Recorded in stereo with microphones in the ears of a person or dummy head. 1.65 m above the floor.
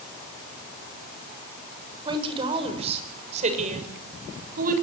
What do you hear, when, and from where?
2.0 s a woman speaking: 30° right (ahead or behind), 6.5 m; by 4.7 s 50° right (ahead or behind), 7 m